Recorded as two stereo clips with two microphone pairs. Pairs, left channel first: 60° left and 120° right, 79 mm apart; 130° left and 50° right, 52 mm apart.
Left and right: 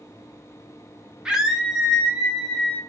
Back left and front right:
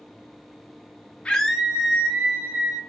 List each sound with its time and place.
1.2 s a scream: 175° left, 0.6 m; by 2.8 s 15° right, 1.2 m